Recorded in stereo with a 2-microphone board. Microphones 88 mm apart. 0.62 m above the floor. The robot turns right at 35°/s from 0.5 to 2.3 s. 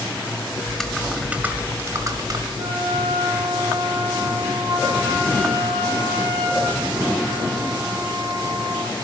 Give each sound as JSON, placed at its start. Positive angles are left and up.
{"t": 0.7, "sound": "typing on a keyboard", "azimuth_deg": 170, "distance_m": 1.3}
{"t": 2.6, "sound": "a flute", "side_deg": -60, "distance_m": 6.0}